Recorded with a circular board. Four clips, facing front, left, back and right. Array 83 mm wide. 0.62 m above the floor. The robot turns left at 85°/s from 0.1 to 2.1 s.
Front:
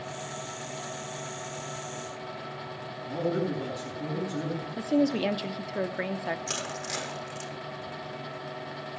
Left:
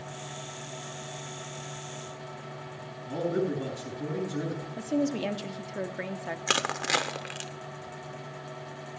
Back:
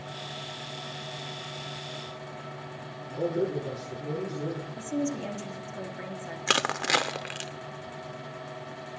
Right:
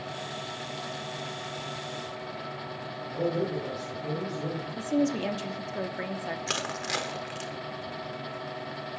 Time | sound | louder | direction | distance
3.1 | a man speaking | even, even | 55° left | 8.5 m
4.8 | a woman speaking | right 2 dB, front 7 dB | straight ahead | 0.9 m
6.5 | crushing | left 3 dB, back 8 dB | 150° left | 1.0 m